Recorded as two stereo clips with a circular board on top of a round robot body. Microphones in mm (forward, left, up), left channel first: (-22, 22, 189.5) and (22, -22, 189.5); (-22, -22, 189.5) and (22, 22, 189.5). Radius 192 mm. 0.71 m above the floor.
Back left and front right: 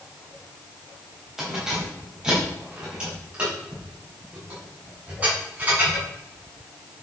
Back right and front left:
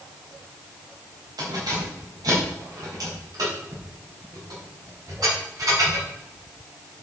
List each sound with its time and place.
1.4 s keys jangling: 40° left, 4 m; by 6.0 s 20° left, 7 m